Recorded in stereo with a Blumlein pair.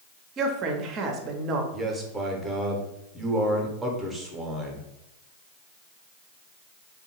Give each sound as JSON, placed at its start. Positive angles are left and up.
{"t": 0.4, "sound": "a woman speaking", "azimuth_deg": -30, "distance_m": 0.6}
{"t": 1.7, "sound": "a man speaking", "azimuth_deg": -5, "distance_m": 0.8}